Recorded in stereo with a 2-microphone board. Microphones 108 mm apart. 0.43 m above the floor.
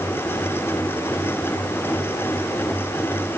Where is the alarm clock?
I don't hear an alarm clock.